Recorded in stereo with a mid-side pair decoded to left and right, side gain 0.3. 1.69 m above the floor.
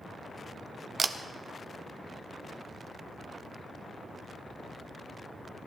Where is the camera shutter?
45° right, 0.9 m.